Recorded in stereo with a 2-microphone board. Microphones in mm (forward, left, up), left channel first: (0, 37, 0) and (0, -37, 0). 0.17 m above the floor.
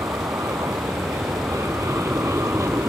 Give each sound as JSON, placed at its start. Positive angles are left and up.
{"t": 0.0, "sound": "an aircraft", "side_deg": -45}